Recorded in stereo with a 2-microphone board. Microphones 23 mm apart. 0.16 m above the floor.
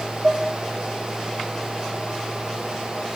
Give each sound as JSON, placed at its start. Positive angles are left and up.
{"t": 0.2, "sound": "dishes clattering", "side_deg": -65, "distance_m": 3.0}